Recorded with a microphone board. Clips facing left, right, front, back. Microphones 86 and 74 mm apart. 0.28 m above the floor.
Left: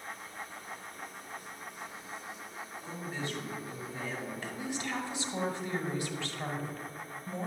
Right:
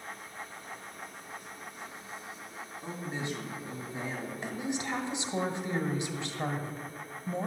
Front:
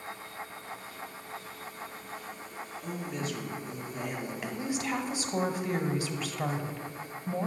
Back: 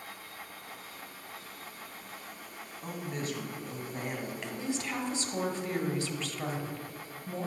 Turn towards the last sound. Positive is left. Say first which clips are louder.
# right 6 dB, front 3 dB
turn(degrees=-60)